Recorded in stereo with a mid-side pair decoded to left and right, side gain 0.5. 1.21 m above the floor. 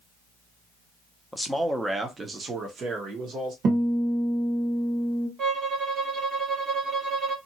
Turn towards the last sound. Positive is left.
turn(degrees=-55)